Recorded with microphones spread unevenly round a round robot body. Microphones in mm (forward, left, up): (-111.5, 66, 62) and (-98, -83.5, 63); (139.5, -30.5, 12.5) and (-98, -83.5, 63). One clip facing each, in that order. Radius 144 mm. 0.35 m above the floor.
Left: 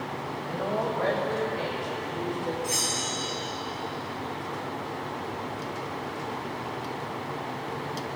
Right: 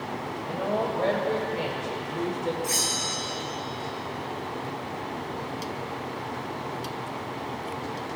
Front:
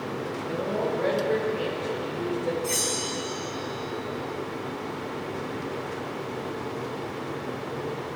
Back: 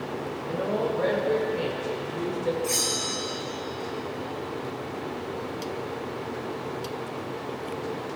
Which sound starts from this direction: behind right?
A woman speaking, at 0.4 s.